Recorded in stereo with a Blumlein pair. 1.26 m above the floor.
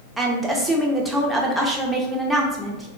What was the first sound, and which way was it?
A woman speaking, 10° right.